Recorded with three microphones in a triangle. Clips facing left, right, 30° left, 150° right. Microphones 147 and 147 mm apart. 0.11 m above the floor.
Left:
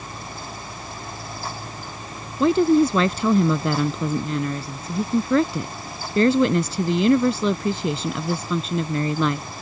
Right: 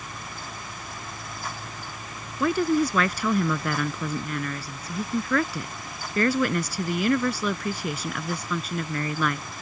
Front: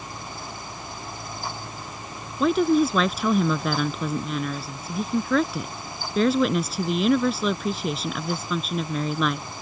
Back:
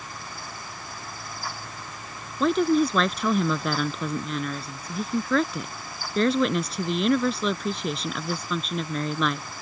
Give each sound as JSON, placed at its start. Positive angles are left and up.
{"t": 2.4, "sound": "a woman speaking", "azimuth_deg": 115}